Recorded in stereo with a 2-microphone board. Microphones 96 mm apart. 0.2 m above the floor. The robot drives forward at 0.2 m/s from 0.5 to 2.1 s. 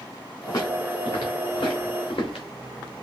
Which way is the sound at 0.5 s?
40° left (ahead or behind).